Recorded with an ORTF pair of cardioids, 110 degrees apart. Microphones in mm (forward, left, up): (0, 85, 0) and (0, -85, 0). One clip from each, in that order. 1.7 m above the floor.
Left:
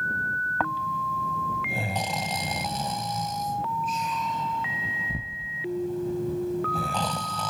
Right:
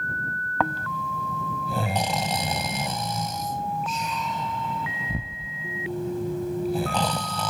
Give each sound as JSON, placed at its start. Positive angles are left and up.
{"t": 0.6, "sound": "snoring", "azimuth_deg": -25}